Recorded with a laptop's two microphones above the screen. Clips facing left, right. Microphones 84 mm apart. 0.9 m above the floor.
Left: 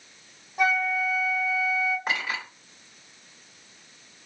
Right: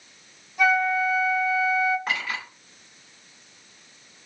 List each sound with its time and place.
0.6 s a flute: 35° left (ahead or behind), 1.3 m
2.1 s a clink: 20° left (ahead or behind), 1.8 m